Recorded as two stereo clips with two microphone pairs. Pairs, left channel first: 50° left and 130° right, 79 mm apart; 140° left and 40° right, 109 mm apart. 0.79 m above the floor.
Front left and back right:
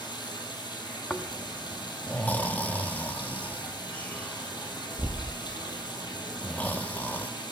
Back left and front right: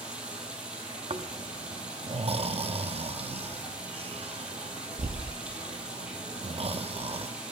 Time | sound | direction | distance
0.0 | running water | 40° left | 3 m
1.1 | snoring | 15° right | 0.7 m